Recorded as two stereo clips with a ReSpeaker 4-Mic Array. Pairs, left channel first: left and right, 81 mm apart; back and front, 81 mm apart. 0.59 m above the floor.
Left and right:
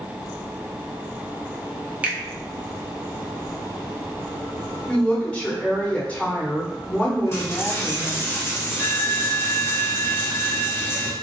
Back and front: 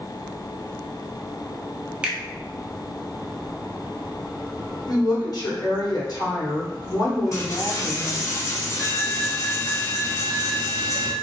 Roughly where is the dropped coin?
Behind left.